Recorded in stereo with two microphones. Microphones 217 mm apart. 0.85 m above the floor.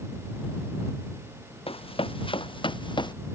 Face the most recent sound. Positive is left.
turn(degrees=20)  # may be behind; listen again after turning